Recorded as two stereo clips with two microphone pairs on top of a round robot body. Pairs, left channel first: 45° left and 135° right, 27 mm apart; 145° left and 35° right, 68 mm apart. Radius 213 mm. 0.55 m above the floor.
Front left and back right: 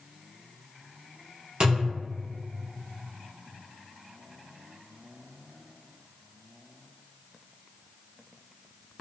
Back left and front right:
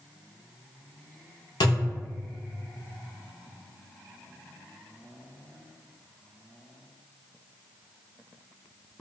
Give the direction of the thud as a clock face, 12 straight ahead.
7 o'clock.